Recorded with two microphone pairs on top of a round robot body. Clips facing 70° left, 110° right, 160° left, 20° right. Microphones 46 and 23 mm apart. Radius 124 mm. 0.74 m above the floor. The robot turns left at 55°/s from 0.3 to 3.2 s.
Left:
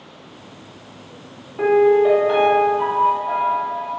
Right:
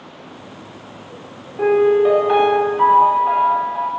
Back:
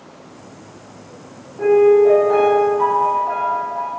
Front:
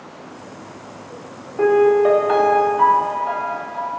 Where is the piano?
5° left, 2 m; by 3.9 s 85° right, 2 m.